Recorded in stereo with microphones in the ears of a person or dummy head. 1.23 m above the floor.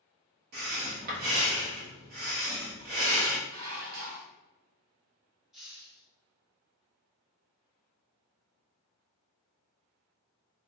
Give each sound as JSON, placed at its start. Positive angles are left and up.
{"t": 0.5, "sound": "breathing", "side_deg": -55, "distance_m": 1.0}
{"t": 3.5, "sound": "dishes clattering", "side_deg": -75, "distance_m": 1.6}
{"t": 5.5, "sound": "a hiss", "side_deg": -5, "distance_m": 0.9}